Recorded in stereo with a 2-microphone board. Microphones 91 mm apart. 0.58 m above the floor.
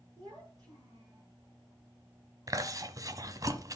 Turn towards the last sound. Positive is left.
turn(degrees=-40)  # may be behind; listen again after turning